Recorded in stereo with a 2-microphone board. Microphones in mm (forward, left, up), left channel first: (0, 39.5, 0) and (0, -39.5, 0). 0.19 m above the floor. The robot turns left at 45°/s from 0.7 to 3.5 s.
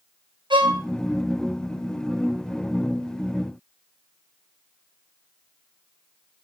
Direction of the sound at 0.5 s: 75° right (ahead or behind).